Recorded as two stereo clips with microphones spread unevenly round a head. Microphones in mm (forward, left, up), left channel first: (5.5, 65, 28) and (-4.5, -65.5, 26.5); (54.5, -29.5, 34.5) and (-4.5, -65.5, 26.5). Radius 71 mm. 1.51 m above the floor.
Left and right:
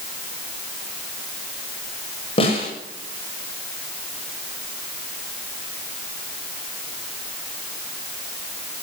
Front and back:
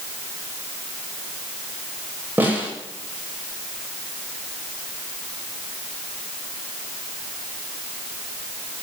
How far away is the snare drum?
About 7.5 m.